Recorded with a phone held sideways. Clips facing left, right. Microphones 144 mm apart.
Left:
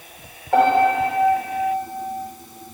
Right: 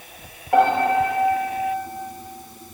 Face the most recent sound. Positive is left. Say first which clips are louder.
# left 1 dB
turn(degrees=-5)  # may be behind; listen again after turning